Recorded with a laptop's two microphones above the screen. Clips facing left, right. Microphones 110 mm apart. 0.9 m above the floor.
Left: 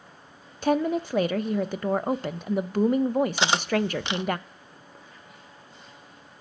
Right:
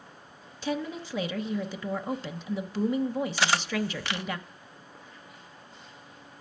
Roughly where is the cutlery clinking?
Left.